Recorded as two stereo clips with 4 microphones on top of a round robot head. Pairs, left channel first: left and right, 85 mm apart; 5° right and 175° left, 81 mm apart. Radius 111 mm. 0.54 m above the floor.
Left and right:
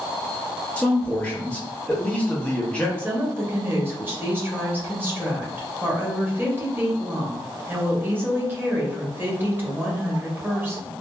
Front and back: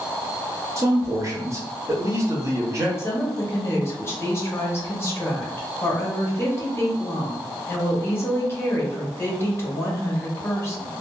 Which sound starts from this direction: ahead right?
A woman speaking, at 3.0 s.